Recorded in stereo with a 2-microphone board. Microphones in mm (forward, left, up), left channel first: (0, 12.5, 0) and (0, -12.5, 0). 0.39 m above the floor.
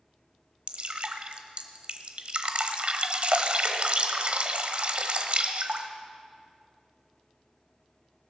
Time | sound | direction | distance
0.7 | dripping | 50° right (ahead or behind) | 0.9 m